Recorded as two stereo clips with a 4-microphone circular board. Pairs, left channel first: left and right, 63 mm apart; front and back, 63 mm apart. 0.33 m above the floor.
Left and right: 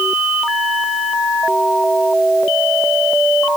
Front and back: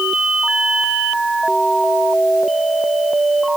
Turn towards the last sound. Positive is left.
No sound to turn to.